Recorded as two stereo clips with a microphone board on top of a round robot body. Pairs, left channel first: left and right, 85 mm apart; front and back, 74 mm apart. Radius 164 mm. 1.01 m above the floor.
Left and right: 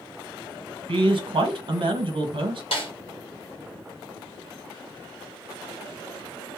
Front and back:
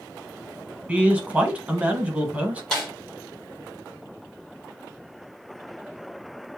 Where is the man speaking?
105° right, 1.3 m.